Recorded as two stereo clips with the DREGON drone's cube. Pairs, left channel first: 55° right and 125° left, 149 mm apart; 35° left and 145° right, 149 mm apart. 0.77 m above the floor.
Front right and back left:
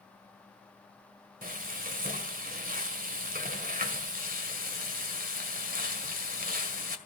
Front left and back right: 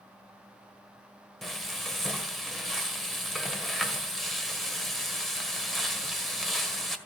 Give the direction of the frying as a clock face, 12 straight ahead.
8 o'clock.